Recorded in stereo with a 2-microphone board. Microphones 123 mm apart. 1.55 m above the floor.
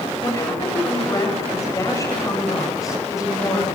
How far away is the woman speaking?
About 7.5 m.